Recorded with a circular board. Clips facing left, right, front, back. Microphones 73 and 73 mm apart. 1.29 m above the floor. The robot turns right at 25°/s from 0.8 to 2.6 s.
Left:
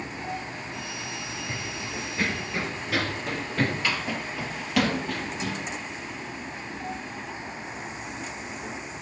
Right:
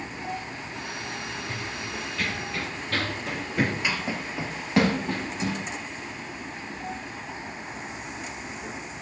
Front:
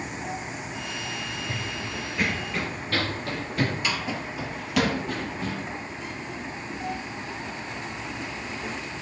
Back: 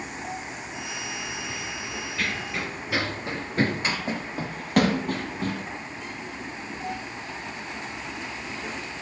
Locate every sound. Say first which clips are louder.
1.5 s running footsteps: even, front 1 dB; 30° left, 1.8 m; by 5.7 s 145° right, 3 m